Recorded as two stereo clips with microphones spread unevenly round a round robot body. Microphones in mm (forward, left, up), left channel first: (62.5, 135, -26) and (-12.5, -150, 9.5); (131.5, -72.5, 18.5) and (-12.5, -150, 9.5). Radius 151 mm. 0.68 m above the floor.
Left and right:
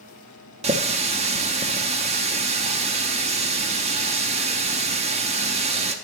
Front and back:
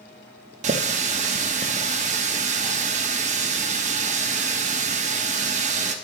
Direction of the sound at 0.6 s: 175° right.